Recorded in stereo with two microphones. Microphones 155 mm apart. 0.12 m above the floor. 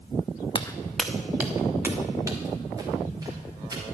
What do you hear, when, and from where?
0.6 s footsteps: 30° left (ahead or behind), 0.6 m; by 3.8 s 25° right (ahead or behind), 4 m